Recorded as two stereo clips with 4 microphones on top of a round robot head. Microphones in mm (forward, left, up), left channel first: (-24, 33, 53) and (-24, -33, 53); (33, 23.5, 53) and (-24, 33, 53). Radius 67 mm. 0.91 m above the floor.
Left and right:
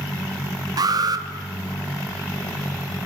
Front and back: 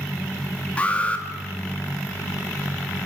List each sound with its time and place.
0.8 s an alarm: 80° right, 2.5 m